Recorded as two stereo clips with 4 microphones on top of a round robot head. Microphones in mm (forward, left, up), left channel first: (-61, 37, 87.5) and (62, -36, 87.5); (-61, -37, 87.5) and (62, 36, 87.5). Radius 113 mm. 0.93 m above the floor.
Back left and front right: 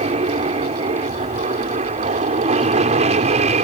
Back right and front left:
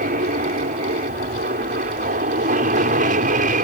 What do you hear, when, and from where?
0.0 s an aircraft: 10° left; by 3.6 s 5° left